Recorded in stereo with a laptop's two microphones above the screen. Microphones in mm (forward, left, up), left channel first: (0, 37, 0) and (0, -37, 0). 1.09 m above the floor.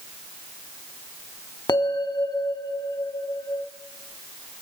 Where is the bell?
70° left (ahead or behind), 1.1 m.